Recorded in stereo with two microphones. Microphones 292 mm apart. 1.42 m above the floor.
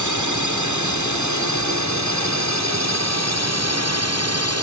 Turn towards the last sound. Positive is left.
turn(degrees=-50)  # may be behind; listen again after turning